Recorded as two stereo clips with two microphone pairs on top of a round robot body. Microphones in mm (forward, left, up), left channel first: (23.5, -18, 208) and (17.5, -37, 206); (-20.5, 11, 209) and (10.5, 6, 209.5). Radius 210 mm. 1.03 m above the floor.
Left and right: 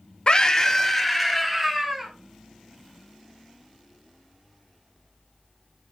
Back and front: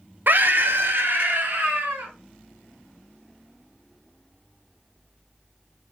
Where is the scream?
20° left, 0.7 m; by 2.1 s 30° right, 1.4 m.